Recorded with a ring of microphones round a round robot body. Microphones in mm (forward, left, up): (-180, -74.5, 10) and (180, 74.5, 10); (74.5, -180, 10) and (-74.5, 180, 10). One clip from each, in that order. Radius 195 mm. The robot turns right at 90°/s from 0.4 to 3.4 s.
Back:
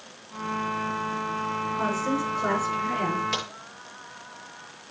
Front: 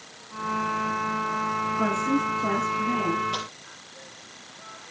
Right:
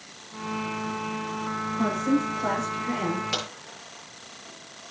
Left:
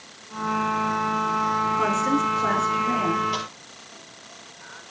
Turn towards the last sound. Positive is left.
turn(degrees=-120)